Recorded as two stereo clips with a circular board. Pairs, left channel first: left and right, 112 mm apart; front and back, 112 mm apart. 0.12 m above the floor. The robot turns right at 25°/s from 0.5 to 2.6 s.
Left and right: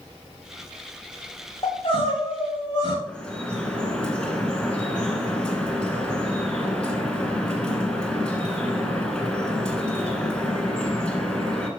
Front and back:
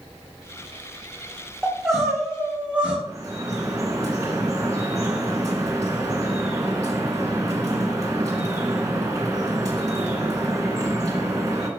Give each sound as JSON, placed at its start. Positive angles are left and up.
{"t": 1.6, "sound": "crying", "azimuth_deg": 80, "distance_m": 2.5}
{"t": 3.1, "sound": "dripping", "azimuth_deg": 165, "distance_m": 1.7}